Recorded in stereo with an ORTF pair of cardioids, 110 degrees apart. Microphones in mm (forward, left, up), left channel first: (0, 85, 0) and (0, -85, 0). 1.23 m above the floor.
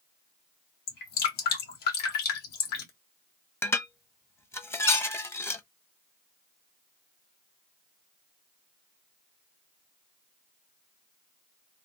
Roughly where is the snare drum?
I don't hear a snare drum.